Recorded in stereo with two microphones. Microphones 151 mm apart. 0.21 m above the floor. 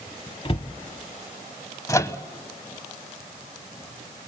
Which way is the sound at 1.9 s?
20° left (ahead or behind).